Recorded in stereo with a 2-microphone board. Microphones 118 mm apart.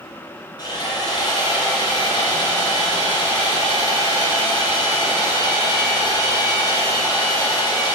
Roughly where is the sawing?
Left.